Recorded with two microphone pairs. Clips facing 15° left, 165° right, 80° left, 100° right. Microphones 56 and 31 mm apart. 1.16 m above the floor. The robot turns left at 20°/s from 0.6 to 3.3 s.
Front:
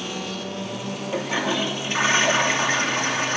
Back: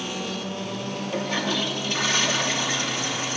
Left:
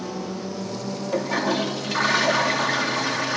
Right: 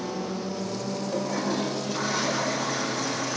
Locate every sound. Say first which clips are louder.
1.1 s a toilet flushing: front 3 dB, left 6 dB; 95° left, 2.5 m; by 3.4 s 50° left, 2.5 m